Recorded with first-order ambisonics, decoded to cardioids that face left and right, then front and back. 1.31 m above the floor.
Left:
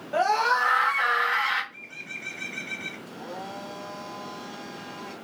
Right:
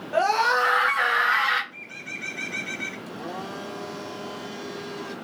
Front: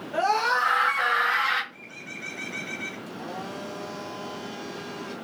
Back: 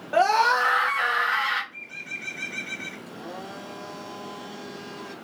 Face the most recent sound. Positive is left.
turn(degrees=-90)